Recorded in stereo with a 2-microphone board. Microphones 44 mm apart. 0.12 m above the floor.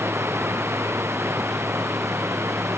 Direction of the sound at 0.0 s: 65° right (ahead or behind).